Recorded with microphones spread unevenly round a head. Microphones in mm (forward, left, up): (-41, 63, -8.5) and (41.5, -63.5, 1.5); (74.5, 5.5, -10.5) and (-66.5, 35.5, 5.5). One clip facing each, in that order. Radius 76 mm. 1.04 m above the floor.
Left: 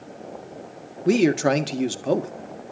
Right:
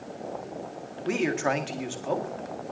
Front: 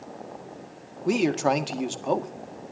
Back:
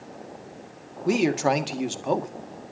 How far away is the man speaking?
About 1.7 m.